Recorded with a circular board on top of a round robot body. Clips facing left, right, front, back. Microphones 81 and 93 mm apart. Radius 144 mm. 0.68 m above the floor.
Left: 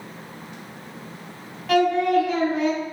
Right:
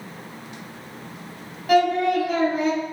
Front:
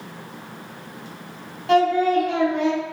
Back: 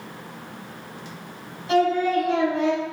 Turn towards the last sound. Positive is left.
turn(degrees=-10)